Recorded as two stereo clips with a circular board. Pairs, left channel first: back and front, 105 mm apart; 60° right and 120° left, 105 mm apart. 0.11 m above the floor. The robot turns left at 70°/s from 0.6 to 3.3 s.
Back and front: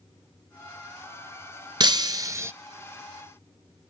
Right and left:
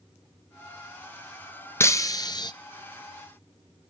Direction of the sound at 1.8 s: 5° right.